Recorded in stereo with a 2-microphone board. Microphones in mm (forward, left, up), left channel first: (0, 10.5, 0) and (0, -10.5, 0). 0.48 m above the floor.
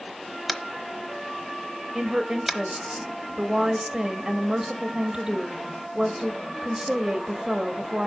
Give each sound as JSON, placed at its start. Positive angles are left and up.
{"t": 0.5, "sound": "tapping", "side_deg": 0, "distance_m": 1.0}
{"t": 1.9, "sound": "a woman speaking", "side_deg": -30, "distance_m": 1.7}